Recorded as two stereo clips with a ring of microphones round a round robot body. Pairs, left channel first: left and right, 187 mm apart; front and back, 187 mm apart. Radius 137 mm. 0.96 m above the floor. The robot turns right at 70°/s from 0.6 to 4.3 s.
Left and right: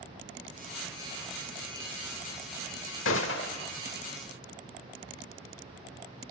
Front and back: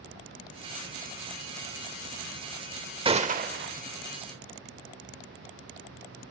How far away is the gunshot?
About 1.2 m.